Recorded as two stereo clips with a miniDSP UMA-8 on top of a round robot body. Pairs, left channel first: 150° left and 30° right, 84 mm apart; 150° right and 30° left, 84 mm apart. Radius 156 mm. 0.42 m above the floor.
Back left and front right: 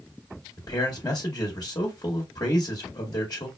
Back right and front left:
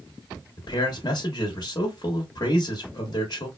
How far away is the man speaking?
About 1.4 m.